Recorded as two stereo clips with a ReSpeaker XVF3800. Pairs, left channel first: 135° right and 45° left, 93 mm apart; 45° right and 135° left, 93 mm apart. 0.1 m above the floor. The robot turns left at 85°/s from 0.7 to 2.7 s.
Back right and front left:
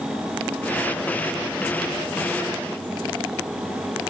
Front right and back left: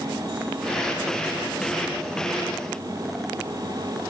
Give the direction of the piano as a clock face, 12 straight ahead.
No piano in this recording.